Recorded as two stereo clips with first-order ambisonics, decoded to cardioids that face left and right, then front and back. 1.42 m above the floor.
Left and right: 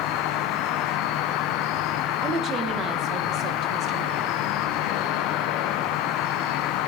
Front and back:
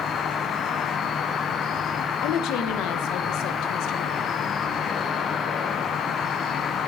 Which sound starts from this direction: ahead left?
An insect, at 0.0 s.